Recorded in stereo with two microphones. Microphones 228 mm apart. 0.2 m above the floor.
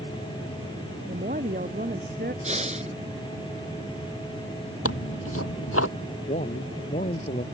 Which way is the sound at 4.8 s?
80° left.